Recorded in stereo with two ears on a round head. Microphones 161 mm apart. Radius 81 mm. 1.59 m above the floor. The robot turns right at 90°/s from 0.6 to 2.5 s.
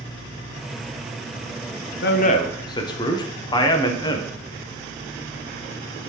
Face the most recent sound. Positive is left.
turn(degrees=155)